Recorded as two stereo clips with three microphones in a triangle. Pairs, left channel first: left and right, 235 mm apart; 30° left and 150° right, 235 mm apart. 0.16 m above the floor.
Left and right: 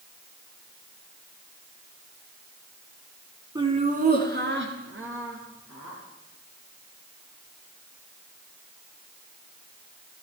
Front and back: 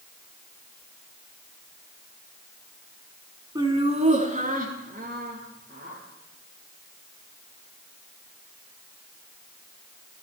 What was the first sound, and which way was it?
Laughter, 120° right.